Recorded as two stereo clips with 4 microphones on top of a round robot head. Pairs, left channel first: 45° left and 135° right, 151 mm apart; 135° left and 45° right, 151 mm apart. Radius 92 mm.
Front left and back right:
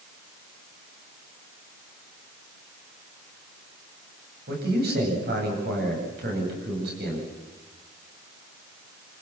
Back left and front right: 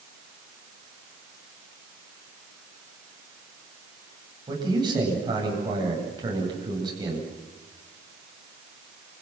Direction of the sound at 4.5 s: 110° right.